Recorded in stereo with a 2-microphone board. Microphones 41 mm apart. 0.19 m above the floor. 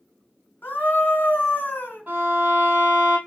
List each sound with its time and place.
0.6 s a scream: 45° left (ahead or behind), 1.4 m
2.1 s a violin: 45° right (ahead or behind), 1.7 m